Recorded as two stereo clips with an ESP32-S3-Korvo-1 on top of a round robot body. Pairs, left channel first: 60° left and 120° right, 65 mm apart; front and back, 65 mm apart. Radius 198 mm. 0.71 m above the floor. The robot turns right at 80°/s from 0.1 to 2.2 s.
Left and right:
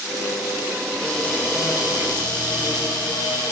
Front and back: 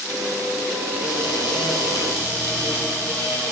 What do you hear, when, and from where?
1.0 s a cupboard door: 30° right, 1.6 m; by 3.5 s 65° left, 1.6 m